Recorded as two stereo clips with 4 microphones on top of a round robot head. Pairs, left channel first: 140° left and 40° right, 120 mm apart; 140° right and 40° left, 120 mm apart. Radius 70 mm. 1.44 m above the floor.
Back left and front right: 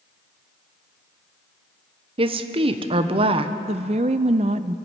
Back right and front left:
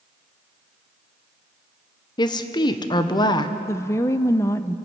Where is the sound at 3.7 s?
75° right, 0.5 m.